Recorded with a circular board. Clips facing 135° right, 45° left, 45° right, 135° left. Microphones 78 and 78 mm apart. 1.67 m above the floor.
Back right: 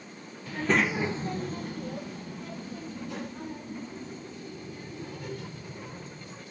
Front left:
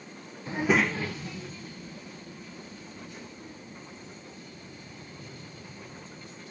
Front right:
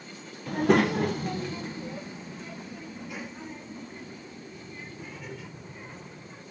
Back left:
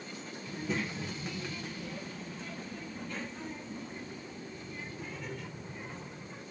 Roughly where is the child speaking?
Ahead.